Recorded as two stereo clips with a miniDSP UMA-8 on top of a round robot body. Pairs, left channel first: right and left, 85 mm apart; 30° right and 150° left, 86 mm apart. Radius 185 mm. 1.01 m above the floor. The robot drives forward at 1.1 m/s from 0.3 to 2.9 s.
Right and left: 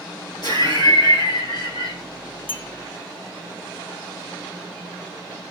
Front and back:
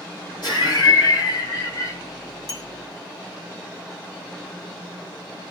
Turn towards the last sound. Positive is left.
turn(degrees=-105)